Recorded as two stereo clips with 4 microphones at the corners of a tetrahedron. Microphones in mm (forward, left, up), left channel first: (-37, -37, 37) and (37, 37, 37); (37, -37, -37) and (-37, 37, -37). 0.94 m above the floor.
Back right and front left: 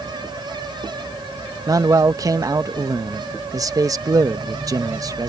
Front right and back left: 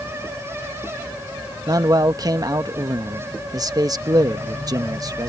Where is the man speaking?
95° left.